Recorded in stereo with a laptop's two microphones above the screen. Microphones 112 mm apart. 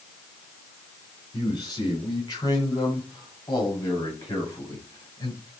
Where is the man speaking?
35° left (ahead or behind), 7.5 m; by 5.5 s 30° left (ahead or behind), 9.5 m.